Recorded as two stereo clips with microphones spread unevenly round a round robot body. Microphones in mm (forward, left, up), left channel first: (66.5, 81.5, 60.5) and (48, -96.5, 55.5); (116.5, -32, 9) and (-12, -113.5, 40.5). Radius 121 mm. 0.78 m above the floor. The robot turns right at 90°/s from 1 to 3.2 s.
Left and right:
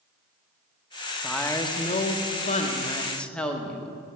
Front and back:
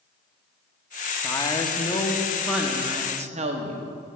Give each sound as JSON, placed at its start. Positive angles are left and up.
{"t": 1.2, "sound": "a woman speaking", "azimuth_deg": -10, "distance_m": 1.1}